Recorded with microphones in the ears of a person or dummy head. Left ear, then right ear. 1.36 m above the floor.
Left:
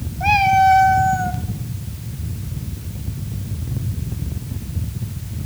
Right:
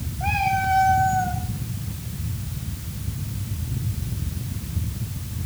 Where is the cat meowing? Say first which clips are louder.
Left 9 dB; 10° left (ahead or behind), 0.5 m; by 1.4 s 15° left (ahead or behind), 0.9 m.